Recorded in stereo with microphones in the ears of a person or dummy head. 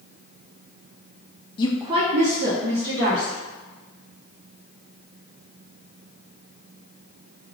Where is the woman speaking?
25° left (ahead or behind), 0.5 m; by 3.4 s 80° right, 2.5 m.